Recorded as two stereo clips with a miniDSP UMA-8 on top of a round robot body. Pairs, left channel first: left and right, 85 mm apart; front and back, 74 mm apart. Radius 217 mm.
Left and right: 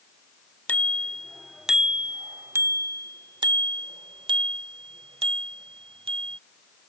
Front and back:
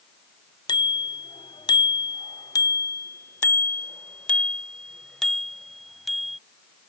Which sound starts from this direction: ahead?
A bicycle bell, at 0.7 s.